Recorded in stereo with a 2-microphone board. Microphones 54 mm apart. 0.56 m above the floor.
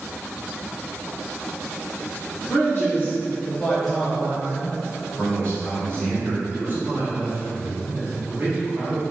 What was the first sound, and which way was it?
A man speaking, 45° left (ahead or behind).